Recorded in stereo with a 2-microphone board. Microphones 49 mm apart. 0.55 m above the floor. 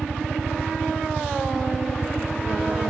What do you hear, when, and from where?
0.0 s a helicopter: 10° right (ahead or behind); by 2.9 s 5° right (ahead or behind)